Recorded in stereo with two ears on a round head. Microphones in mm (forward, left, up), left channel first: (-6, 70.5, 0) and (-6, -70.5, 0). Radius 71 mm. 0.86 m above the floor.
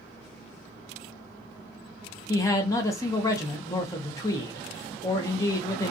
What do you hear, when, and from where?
2.3 s a man speaking: 20° left (ahead or behind), 0.7 m